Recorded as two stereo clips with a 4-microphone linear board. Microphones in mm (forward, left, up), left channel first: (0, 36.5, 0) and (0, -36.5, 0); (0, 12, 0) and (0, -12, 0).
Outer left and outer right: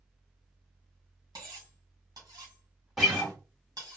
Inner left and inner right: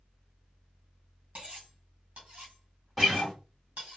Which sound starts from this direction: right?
Cutlery clinking, at 1.4 s.